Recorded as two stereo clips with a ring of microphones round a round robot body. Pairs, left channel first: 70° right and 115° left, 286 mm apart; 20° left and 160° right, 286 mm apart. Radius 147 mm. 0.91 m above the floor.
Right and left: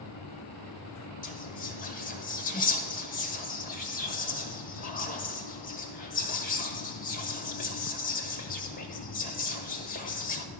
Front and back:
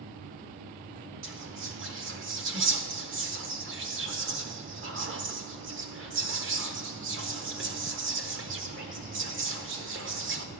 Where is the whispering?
120° right, 1.1 m.